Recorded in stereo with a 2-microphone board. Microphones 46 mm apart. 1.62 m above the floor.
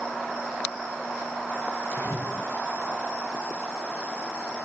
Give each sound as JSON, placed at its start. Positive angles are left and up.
{"t": 1.9, "sound": "a splash", "side_deg": 50, "distance_m": 7.5}